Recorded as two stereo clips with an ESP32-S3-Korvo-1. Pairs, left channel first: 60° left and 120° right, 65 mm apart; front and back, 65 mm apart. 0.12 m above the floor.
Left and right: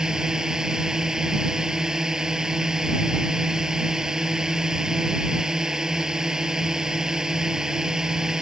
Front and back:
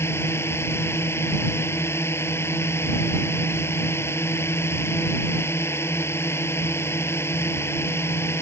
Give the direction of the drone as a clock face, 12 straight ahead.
1 o'clock.